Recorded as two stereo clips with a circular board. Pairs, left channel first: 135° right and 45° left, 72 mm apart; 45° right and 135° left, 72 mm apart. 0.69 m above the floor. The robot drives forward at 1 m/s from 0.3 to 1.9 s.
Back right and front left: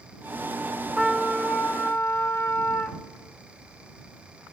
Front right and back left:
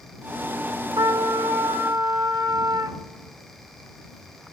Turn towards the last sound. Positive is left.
turn(degrees=160)